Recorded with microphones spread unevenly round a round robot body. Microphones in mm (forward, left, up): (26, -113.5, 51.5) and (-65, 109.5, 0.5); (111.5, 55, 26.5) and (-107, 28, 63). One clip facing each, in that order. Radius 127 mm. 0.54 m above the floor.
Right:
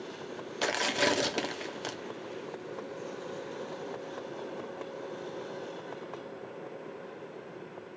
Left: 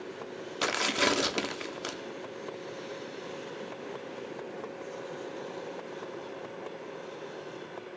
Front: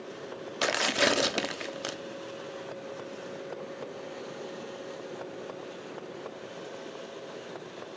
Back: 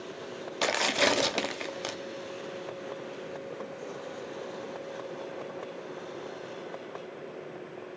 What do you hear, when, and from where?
0.6 s tearing paper: 65° left, 0.8 m